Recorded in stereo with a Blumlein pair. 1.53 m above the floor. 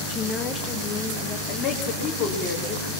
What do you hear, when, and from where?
0.1 s a woman speaking: 25° left, 1.7 m
1.5 s a woman speaking: 15° left, 4 m